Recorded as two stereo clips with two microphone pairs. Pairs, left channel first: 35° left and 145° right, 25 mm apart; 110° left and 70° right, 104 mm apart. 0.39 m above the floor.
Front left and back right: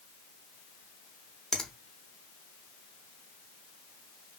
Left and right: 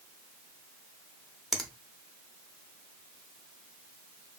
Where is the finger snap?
30° left, 0.6 m.